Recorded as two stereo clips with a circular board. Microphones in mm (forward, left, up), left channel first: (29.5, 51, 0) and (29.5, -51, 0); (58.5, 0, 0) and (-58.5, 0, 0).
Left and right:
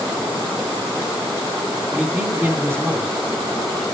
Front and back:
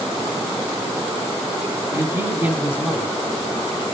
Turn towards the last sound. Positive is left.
turn(degrees=-75)